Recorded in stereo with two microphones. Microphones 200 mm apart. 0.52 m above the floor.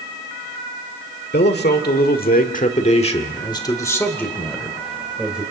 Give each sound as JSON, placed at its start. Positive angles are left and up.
{"t": 1.3, "sound": "a man speaking", "side_deg": 55, "distance_m": 1.8}